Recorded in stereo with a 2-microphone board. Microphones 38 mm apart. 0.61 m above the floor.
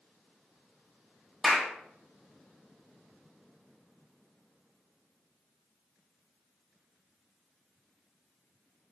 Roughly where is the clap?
Centre.